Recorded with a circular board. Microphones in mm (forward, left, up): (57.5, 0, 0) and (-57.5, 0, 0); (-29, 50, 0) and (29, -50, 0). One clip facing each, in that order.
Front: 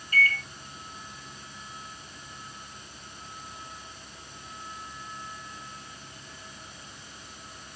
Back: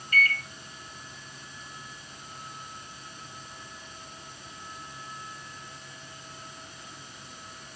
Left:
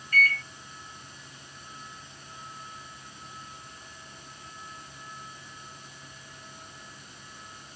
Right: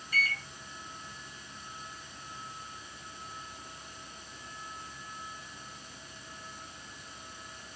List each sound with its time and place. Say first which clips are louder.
0.1 s a microwave: even, left 7 dB; 10° left, 0.9 m